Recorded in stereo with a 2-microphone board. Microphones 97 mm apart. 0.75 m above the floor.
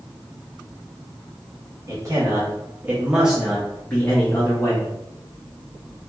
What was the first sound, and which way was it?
A man speaking, 40° right (ahead or behind).